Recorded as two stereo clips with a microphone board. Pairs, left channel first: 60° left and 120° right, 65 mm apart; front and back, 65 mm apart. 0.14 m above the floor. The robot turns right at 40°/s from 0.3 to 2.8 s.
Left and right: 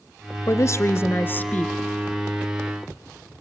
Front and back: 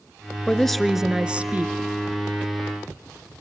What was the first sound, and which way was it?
A woman speaking, 75° left.